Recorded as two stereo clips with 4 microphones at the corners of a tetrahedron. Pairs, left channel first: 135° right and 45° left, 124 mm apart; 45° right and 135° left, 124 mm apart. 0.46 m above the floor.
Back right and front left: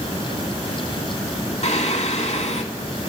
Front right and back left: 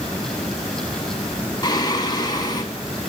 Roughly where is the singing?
Right.